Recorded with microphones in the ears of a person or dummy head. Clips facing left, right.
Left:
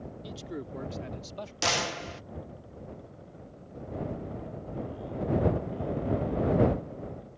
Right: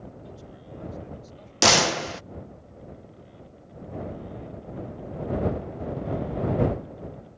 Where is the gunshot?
65° right (ahead or behind).